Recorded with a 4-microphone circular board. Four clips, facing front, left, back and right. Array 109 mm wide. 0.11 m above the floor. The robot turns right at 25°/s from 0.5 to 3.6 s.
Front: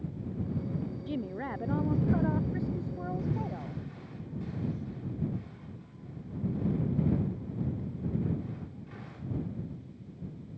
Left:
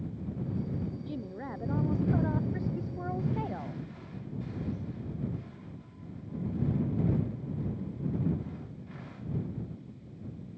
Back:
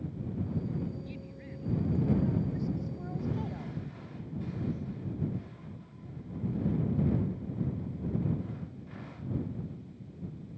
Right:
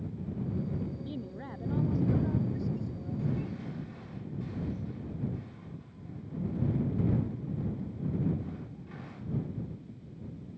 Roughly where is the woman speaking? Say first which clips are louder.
Left 2 dB, front 10 dB; ahead.